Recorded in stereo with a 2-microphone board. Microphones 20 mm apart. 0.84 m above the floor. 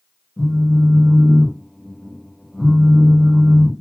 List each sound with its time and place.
0.4 s a phone buzzing: 15° left (ahead or behind), 1.8 m